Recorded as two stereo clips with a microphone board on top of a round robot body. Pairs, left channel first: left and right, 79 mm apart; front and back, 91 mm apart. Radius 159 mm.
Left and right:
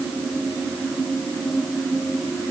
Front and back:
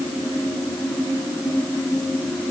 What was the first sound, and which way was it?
Only background noise.